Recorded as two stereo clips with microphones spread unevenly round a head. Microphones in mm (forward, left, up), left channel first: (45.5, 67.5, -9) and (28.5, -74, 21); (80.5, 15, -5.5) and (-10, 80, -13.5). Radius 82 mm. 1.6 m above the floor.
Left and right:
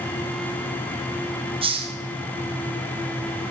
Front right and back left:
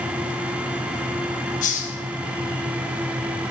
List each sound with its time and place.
1.6 s a hiss: 45° right, 1.9 m